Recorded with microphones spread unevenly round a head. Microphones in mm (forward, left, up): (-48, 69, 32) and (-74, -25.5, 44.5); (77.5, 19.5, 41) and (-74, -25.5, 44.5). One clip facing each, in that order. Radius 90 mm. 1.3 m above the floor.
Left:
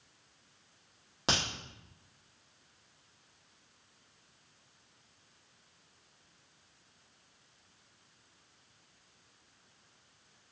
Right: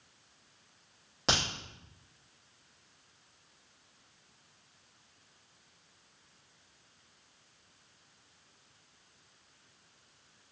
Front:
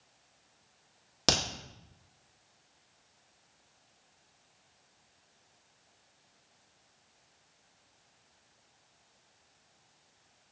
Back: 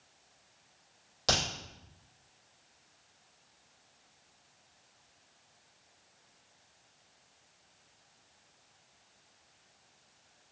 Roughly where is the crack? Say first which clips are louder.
Right 1 dB, front 1 dB; ahead.